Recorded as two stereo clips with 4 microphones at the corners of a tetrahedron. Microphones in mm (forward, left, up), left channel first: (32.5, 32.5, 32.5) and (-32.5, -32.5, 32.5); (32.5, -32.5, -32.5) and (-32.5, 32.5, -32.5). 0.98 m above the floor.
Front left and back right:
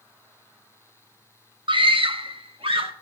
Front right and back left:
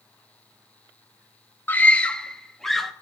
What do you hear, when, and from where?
1.7 s a scream: 115° right, 0.8 m; by 2.9 s 135° right, 1.7 m